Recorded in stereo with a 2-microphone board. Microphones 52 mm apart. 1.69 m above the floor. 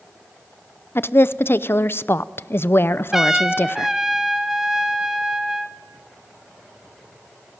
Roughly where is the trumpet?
Centre.